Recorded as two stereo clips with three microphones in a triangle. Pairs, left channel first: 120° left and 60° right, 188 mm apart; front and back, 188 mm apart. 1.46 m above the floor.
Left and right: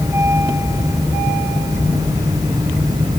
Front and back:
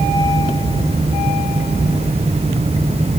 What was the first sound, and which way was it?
Only background noise.